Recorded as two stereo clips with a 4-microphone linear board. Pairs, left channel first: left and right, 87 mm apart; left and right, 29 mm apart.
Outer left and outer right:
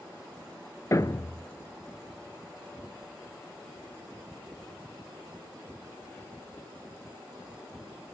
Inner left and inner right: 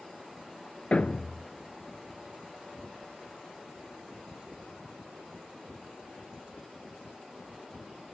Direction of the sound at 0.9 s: 40° left (ahead or behind).